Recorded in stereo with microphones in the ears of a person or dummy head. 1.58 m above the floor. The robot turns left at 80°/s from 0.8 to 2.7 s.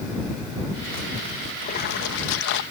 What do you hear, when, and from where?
1.6 s a splash: 140° left; by 2.6 s 60° left